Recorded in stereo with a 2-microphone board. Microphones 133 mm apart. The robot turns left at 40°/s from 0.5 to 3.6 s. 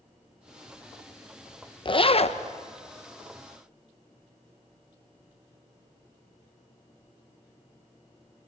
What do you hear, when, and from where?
1.9 s a zipper: 40° left (ahead or behind), 0.9 m; by 2.4 s 55° left (ahead or behind), 0.9 m